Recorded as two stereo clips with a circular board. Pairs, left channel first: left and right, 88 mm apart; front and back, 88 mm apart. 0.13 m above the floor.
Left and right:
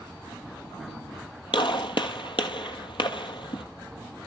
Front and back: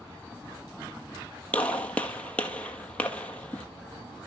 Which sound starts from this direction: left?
A gunshot, at 1.5 s.